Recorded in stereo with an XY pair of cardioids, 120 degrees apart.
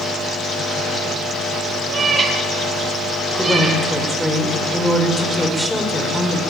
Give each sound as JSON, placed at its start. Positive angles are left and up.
{"t": 1.9, "sound": "a cat meowing", "azimuth_deg": -35, "distance_m": 4.5}
{"t": 3.4, "sound": "a woman speaking", "azimuth_deg": 5, "distance_m": 5.5}